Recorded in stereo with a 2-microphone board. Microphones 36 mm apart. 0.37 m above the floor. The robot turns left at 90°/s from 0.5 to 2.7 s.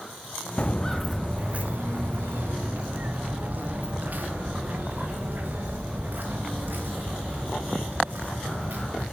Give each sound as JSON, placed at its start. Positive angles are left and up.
{"t": 0.6, "sound": "footsteps", "side_deg": 30, "distance_m": 1.2}